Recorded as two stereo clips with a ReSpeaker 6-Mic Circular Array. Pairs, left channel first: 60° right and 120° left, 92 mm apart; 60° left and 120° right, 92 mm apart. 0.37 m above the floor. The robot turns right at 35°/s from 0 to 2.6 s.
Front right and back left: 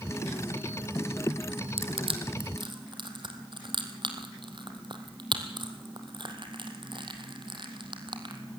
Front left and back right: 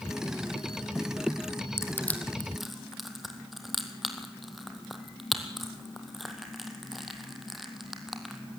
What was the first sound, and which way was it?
Crushing, 125° left.